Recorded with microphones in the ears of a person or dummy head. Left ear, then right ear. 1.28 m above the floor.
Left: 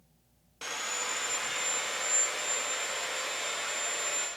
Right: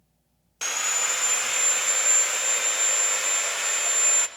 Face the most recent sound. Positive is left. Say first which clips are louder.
# right 8 dB
turn(degrees=-40)  # may be behind; listen again after turning